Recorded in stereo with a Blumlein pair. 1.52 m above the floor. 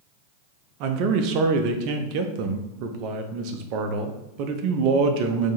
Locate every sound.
0.8 s a man speaking: 45° right, 0.6 m